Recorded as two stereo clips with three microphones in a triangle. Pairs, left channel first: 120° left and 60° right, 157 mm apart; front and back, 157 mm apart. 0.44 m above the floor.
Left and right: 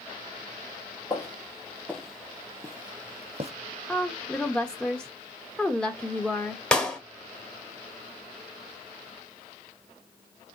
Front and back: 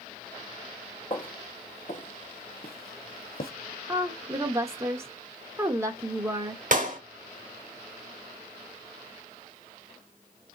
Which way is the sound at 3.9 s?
165° right.